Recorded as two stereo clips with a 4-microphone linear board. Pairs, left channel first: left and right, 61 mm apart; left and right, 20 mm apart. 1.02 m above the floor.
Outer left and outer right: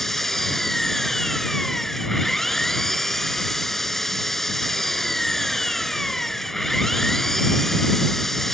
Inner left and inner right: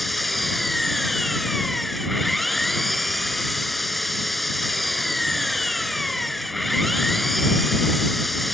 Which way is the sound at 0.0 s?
5° left (ahead or behind).